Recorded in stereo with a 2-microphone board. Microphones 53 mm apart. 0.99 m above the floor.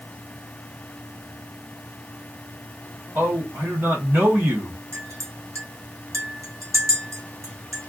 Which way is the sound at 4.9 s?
75° right (ahead or behind).